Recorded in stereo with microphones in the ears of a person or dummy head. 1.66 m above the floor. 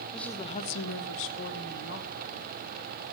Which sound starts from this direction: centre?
A woman speaking, at 0.1 s.